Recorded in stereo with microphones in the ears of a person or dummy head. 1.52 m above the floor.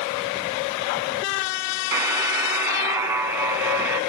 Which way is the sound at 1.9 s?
15° right (ahead or behind).